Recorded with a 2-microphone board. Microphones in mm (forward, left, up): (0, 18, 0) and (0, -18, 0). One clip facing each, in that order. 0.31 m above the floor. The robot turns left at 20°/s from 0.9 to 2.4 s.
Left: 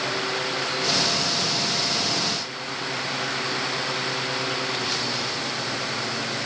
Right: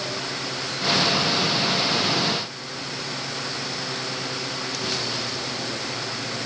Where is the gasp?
I don't hear a gasp.